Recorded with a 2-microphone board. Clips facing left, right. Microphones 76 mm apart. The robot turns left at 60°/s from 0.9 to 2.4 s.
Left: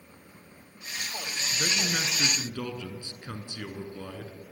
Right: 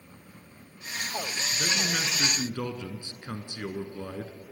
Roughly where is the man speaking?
Ahead left.